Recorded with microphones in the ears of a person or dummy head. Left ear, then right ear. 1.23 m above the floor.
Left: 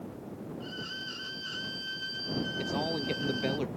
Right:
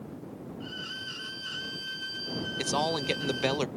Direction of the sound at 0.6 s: 20° right (ahead or behind).